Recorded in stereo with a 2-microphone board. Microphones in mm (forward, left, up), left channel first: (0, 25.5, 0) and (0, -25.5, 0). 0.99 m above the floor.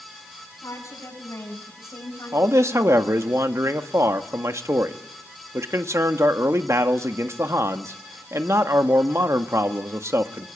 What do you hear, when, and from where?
0.6 s a woman speaking: 85° left, 7.5 m; by 3.3 s 80° left, 5 m
2.3 s a man speaking: 65° right (ahead or behind), 1.5 m